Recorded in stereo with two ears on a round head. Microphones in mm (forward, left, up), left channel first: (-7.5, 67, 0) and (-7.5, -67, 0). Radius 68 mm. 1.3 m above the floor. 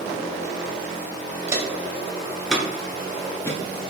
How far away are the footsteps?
About 1.4 m.